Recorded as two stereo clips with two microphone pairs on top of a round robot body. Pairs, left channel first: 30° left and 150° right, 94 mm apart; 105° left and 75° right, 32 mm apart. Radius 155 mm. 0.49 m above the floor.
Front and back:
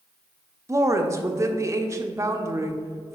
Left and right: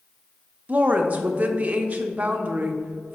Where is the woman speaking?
100° right, 1.0 m.